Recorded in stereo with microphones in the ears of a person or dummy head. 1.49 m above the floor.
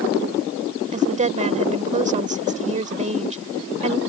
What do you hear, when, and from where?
0.9 s a woman speaking: 30° right (ahead or behind)